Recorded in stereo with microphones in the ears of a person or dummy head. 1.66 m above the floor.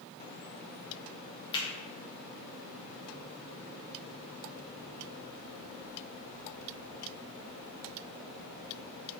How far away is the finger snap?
About 0.7 m.